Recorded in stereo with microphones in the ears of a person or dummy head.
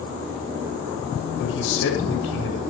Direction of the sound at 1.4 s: 75° left (ahead or behind).